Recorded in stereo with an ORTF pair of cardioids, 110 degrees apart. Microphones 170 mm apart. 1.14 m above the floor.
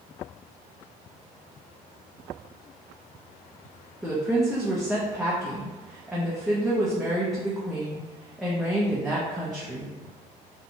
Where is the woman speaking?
Straight ahead, 0.6 m.